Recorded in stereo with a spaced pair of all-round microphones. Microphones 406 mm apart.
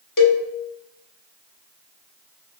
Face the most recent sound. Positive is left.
turn(degrees=55)  # may be behind; listen again after turning